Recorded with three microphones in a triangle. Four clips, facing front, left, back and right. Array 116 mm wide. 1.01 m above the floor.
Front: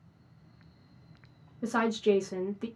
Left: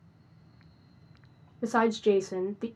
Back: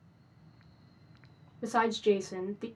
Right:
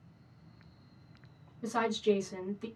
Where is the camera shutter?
I don't hear a camera shutter.